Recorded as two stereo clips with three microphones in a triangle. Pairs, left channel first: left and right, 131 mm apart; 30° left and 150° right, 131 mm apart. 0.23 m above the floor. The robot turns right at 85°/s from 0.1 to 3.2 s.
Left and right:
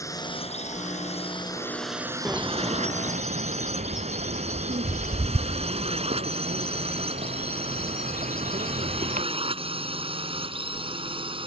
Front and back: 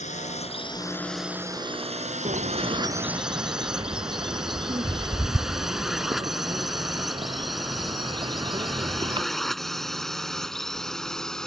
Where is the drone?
25° left; by 11.5 s 55° right.